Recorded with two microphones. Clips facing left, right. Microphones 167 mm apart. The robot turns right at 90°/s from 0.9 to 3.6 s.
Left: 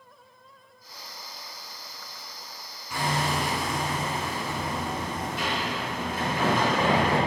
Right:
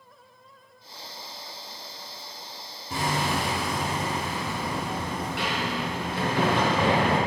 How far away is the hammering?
About 4.5 m.